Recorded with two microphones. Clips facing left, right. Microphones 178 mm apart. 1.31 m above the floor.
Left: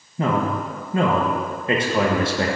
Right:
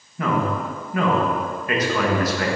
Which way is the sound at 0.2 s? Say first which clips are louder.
Left 1 dB; 25° left (ahead or behind).